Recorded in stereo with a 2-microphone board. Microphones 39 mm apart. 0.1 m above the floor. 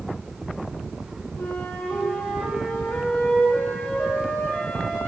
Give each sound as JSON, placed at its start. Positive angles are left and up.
{"t": 1.4, "sound": "a flute", "side_deg": 45, "distance_m": 2.0}